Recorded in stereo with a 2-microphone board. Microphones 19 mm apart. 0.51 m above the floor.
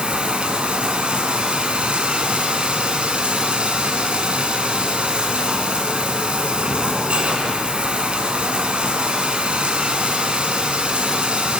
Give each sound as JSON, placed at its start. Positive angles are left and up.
{"t": 0.0, "sound": "running water", "side_deg": -80, "distance_m": 3.0}